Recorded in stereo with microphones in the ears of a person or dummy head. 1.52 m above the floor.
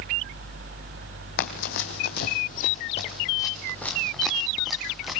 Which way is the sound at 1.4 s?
60° left (ahead or behind).